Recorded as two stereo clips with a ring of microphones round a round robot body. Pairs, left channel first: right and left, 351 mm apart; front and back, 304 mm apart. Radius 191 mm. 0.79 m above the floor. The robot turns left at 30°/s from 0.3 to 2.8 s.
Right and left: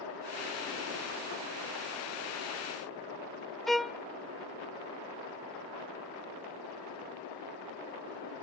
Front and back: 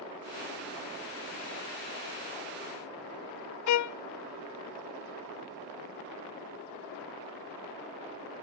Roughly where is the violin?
Ahead.